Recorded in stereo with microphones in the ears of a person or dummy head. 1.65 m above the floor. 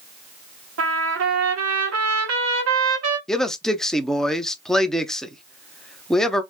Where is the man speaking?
Centre (ahead or behind), 0.5 m.